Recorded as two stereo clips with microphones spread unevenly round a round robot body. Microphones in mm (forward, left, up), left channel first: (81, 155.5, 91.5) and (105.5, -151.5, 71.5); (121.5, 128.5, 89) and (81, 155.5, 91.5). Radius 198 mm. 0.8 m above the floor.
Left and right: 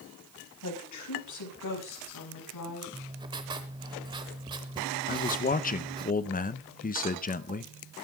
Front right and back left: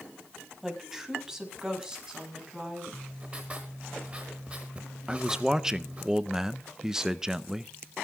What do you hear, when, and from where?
0.6 s a woman speaking: 65° left, 5.5 m; by 2.8 s 75° left, 7.5 m
2.9 s writing: 160° right, 0.6 m
5.1 s a man speaking: 70° left, 0.8 m